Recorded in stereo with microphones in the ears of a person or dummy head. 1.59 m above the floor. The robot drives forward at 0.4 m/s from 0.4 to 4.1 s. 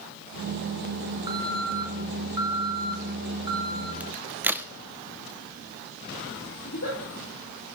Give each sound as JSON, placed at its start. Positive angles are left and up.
{"t": 1.3, "sound": "an alarm", "side_deg": -25, "distance_m": 3.0}
{"t": 4.0, "sound": "a crack", "side_deg": -15, "distance_m": 0.9}
{"t": 6.6, "sound": "a giggle", "side_deg": 75, "distance_m": 10.0}